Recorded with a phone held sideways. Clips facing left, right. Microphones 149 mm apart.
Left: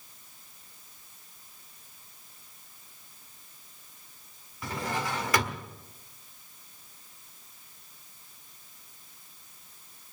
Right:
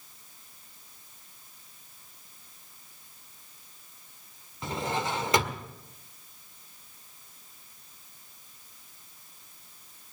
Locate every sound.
4.6 s a drawer: 25° right (ahead or behind), 1.6 m